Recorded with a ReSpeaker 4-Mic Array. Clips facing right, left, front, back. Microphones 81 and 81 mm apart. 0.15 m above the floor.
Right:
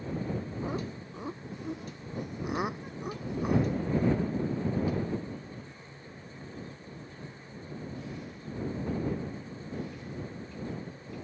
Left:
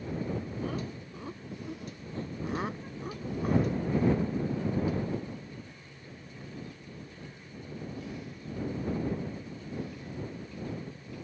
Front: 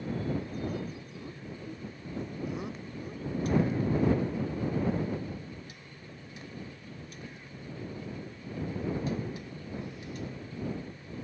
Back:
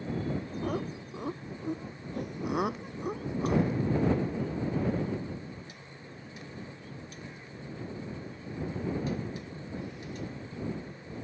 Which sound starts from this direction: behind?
Laughter, at 0.6 s.